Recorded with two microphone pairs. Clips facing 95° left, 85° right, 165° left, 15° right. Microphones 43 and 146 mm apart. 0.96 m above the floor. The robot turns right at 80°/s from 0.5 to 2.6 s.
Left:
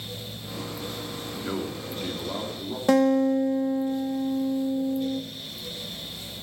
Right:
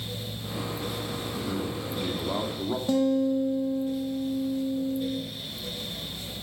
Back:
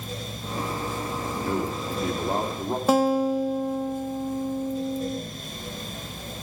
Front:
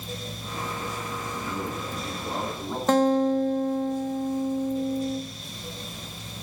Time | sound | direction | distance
1.4 | a man speaking | 130° left | 2.5 m
2.9 | a guitar | 85° left | 1.0 m